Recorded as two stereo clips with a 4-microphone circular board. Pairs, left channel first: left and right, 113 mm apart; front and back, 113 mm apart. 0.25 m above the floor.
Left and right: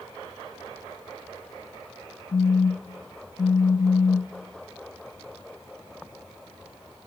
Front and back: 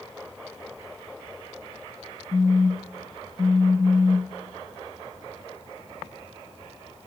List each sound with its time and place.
2.3 s a phone buzzing: 80° left, 1.8 m